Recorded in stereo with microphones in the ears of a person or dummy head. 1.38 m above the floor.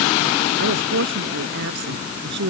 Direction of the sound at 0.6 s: 65° right (ahead or behind).